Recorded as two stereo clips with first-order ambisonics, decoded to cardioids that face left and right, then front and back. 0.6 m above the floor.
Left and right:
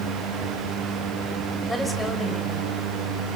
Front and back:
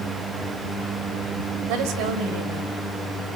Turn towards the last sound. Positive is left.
turn(degrees=180)